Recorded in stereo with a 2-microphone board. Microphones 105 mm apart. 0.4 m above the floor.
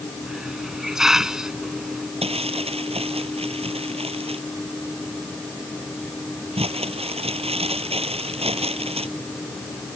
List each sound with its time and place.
0.2 s a hiss: 5° right (ahead or behind)
2.2 s crumpling: 75° right (ahead or behind)